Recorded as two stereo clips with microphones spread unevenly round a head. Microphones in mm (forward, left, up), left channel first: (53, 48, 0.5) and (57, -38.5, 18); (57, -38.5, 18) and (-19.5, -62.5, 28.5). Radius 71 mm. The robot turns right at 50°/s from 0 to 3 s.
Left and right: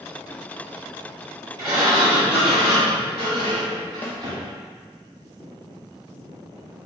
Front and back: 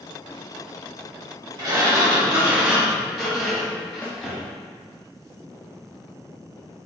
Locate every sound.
1.6 s a sliding door: 145° right, 1.7 m; by 4.5 s 75° right, 1.7 m
4.0 s a snare drum: 60° left, 0.9 m